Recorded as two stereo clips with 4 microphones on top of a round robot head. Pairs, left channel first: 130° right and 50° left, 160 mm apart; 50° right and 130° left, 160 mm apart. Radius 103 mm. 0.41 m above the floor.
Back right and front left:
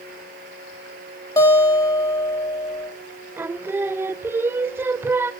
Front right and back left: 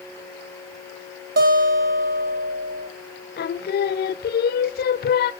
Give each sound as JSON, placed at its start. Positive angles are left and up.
{"t": 1.4, "sound": "a guitar", "azimuth_deg": 160, "distance_m": 4.5}
{"t": 3.4, "sound": "singing", "azimuth_deg": -30, "distance_m": 0.5}